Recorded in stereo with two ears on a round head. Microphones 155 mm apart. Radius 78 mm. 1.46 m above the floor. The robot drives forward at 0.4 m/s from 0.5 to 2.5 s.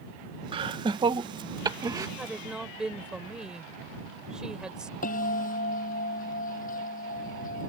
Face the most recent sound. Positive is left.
turn(degrees=50)  # may be behind; listen again after turning